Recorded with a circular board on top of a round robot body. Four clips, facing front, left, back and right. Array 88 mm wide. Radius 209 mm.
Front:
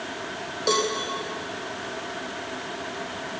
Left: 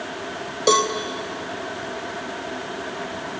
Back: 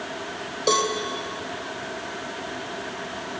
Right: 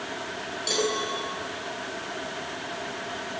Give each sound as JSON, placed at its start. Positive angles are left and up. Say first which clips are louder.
{"t": 0.7, "sound": "a cowbell", "louder": "left 9 dB, back 2 dB", "azimuth_deg": 100, "distance_m": 3.0}